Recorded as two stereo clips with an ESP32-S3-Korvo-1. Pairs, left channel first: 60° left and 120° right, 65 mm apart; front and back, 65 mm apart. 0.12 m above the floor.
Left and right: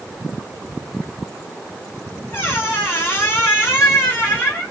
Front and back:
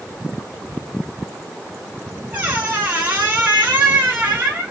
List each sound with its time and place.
2.3 s a squeak: 115° left, 0.7 m